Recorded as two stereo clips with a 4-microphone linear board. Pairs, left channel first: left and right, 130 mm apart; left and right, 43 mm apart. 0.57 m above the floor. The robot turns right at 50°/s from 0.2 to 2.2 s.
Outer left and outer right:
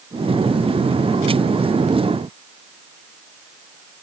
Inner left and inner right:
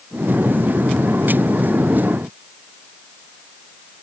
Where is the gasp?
No gasp in this recording.